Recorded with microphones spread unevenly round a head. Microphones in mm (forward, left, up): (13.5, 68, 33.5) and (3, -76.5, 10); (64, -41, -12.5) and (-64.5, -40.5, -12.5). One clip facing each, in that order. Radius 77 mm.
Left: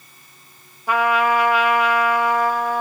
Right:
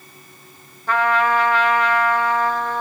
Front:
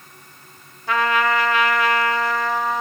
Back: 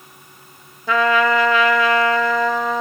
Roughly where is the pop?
No pop in this recording.